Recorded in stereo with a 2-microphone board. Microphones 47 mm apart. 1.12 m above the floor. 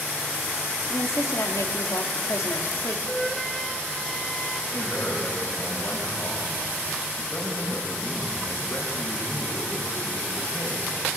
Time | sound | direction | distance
0.9 | a woman speaking | 80° left | 1.8 m
3.1 | a flute | 5° left (ahead or behind) | 1.1 m
4.7 | a man speaking | 75° left (ahead or behind) | 7.5 m